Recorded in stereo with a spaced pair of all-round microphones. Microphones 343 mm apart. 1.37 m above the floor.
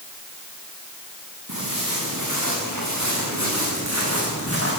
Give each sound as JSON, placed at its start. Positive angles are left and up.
{"t": 1.5, "sound": "footsteps", "side_deg": -65, "distance_m": 9.0}